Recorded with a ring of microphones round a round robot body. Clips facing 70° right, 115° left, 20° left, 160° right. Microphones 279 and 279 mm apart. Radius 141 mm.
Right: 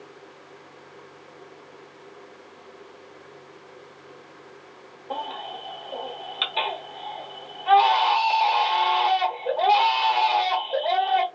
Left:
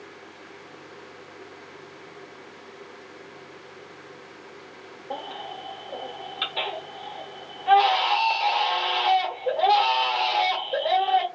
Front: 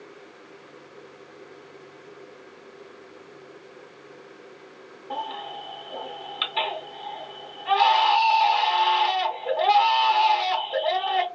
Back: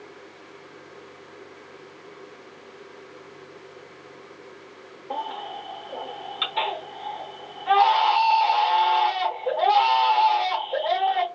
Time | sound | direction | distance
5.1 | a baby crying | 10° right | 1.0 m